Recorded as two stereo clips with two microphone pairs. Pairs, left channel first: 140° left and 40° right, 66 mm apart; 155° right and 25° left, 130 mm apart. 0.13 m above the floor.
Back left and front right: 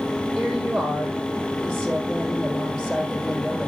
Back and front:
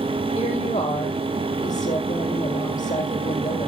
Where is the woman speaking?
135° right, 4.5 m.